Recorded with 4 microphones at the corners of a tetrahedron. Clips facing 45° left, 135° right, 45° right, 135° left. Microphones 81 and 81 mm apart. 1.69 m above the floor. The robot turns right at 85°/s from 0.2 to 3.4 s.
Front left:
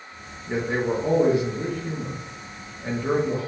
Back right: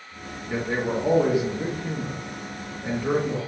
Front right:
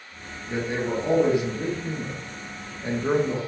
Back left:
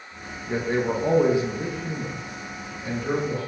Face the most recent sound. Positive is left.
turn(degrees=-10)